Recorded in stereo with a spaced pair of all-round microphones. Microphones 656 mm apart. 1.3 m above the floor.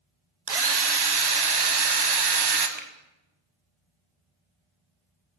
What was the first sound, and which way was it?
A drill, 40° right (ahead or behind).